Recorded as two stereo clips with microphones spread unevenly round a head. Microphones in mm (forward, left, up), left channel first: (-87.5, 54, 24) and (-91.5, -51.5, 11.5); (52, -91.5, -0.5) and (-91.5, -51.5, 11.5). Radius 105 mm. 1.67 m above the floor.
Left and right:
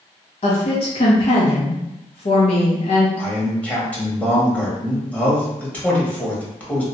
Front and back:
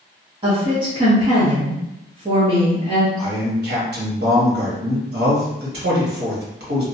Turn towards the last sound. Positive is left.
turn(degrees=165)